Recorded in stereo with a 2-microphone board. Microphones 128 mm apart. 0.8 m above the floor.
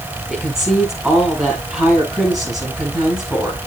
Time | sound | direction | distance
0.3 | a woman speaking | 5° right (ahead or behind) | 7 m